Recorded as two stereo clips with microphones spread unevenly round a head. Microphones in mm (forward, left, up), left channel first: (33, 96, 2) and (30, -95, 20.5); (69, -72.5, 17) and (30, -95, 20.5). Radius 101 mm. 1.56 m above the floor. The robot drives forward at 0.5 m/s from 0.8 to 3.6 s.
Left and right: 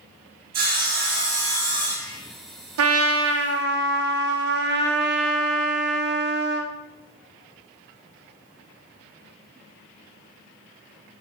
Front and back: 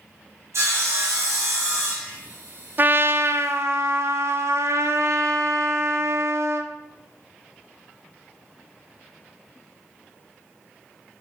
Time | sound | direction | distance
0.5 | sawing | 140° right | 3 m
2.8 | a trumpet | 100° right | 0.6 m